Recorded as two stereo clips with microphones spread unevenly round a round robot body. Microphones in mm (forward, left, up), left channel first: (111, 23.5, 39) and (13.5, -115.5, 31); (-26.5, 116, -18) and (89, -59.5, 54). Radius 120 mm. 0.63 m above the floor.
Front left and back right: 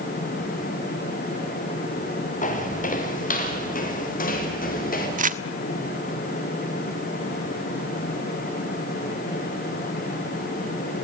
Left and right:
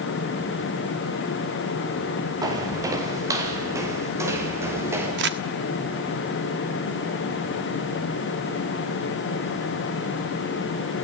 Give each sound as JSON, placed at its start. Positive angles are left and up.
{"t": 2.4, "sound": "footsteps", "azimuth_deg": 15, "distance_m": 5.0}
{"t": 5.2, "sound": "crumpling", "azimuth_deg": -105, "distance_m": 1.4}